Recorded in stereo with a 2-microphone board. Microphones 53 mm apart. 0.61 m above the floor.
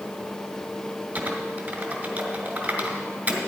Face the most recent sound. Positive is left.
turn(degrees=-40)  # may be behind; listen again after turning